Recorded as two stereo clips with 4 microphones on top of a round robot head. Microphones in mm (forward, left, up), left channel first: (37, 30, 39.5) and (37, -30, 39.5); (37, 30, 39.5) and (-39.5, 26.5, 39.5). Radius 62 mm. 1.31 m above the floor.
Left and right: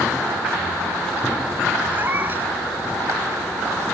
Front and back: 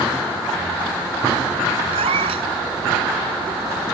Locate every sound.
1.9 s a cat meowing: 160° right